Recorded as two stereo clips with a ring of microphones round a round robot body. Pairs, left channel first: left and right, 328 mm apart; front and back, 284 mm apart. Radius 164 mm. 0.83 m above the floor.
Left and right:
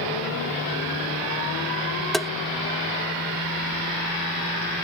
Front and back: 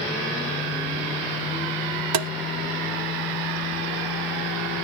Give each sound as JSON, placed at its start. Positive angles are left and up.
{"t": 2.1, "sound": "tapping", "azimuth_deg": 180}